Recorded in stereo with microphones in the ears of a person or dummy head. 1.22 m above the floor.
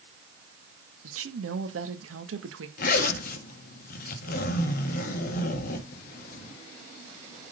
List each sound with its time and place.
1.0 s a woman speaking: 75° right (ahead or behind), 1.6 m
2.8 s a zipper: 50° left (ahead or behind), 1.5 m